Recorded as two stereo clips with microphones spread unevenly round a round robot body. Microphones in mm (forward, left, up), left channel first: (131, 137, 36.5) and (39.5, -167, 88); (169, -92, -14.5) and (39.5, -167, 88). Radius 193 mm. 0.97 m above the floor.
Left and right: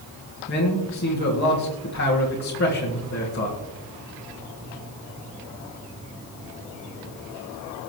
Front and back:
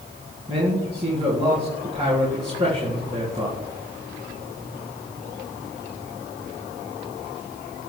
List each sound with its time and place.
0.5 s a man speaking: 125° left, 1.7 m